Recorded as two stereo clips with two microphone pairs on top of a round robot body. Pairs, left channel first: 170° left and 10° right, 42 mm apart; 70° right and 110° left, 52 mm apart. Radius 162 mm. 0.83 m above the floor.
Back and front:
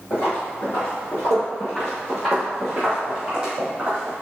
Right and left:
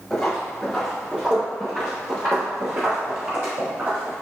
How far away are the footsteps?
About 1.3 m.